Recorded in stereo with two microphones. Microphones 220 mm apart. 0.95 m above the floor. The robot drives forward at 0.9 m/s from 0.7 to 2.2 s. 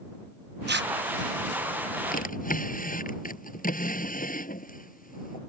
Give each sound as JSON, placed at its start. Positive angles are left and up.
{"t": 0.7, "sound": "tearing paper", "side_deg": -50}
{"t": 2.1, "sound": "a drawer", "side_deg": 40}